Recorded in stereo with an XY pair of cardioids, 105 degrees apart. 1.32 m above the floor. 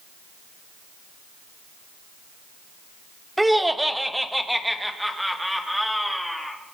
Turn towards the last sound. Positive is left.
turn(degrees=5)